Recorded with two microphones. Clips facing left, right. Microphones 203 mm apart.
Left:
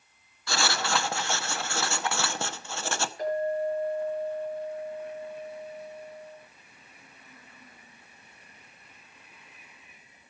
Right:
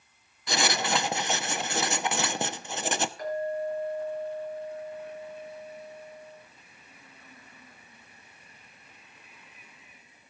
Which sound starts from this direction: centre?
Writing, at 0.5 s.